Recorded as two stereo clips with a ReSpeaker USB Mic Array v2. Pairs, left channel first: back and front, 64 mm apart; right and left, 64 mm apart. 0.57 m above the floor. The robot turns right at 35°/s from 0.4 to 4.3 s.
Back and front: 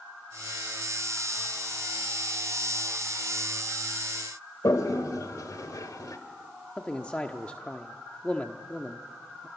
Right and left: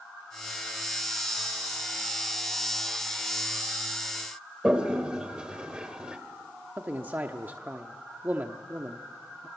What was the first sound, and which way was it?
A toilet flushing, 165° left.